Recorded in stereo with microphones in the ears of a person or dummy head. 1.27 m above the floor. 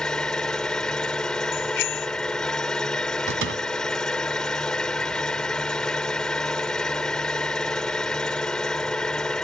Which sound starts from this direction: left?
A bicycle bell, at 1.5 s.